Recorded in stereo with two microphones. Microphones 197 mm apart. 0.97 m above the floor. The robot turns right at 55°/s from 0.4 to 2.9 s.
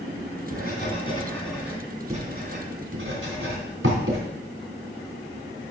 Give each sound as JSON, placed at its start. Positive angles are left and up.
{"t": 0.5, "sound": "writing", "side_deg": 55, "distance_m": 3.5}